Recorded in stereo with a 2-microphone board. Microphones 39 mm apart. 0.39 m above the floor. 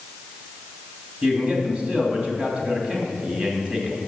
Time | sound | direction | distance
1.2 | a man speaking | 30° right (ahead or behind) | 2.5 m